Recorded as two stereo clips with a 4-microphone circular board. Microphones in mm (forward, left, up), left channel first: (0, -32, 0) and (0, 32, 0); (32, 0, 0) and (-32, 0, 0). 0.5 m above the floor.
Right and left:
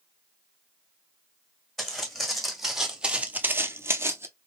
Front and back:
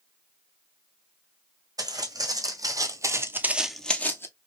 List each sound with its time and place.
1.8 s footsteps: 175° right, 1.7 m; by 4.3 s 45° left, 0.8 m